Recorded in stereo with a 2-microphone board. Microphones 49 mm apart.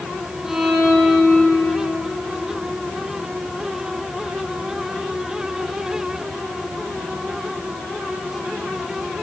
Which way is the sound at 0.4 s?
10° right (ahead or behind).